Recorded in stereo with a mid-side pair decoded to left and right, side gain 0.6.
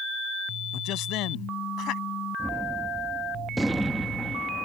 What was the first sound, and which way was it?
A man speaking, 65° left.